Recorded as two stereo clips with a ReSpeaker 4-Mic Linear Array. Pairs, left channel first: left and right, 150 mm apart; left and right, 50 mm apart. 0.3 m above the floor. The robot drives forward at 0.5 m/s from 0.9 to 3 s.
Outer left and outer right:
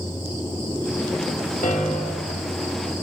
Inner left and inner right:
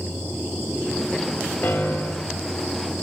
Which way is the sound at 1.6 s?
55° left (ahead or behind).